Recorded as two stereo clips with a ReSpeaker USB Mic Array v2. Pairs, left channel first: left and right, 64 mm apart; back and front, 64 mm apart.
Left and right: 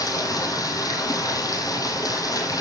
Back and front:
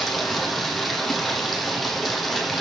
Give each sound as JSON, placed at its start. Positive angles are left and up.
{"t": 0.0, "sound": "running water", "azimuth_deg": 90, "distance_m": 2.5}